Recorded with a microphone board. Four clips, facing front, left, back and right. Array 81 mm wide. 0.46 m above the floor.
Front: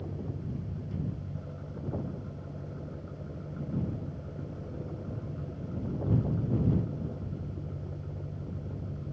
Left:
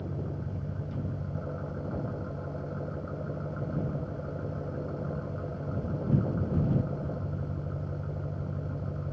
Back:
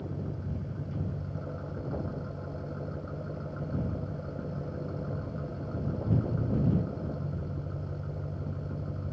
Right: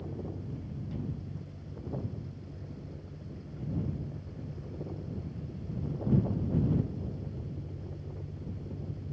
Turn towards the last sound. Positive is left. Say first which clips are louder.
# left 3 dB, back 1 dB
turn(degrees=115)